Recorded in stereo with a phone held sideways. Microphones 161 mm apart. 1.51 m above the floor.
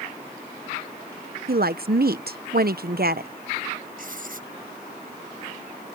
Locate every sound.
1.5 s a woman speaking: 70° right (ahead or behind)
4.0 s writing: 60° right (ahead or behind)